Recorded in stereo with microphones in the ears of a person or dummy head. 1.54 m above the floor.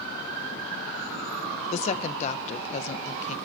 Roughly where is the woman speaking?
Left.